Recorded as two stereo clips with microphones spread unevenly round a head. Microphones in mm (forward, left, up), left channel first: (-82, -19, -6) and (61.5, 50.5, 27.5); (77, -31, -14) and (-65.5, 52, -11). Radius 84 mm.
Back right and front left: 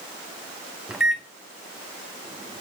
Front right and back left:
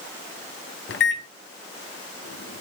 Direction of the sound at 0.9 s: 60° right.